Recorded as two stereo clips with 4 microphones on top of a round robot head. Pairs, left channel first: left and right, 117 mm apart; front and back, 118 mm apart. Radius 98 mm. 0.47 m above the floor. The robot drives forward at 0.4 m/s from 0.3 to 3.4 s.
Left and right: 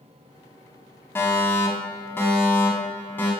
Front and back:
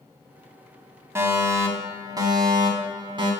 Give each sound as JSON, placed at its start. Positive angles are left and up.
{"t": 1.1, "sound": "a fire alarm", "azimuth_deg": 140, "distance_m": 1.9}